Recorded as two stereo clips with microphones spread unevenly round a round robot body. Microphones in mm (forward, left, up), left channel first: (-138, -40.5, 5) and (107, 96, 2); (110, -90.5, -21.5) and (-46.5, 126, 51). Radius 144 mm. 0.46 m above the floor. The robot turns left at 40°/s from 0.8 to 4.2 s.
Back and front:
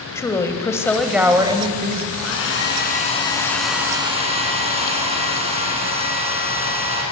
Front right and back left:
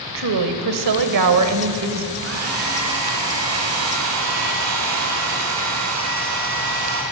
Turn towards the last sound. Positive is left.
turn(degrees=95)